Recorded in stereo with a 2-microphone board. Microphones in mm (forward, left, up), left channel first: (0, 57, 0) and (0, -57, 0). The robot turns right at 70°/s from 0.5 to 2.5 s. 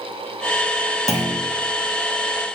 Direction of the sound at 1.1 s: 75° left (ahead or behind).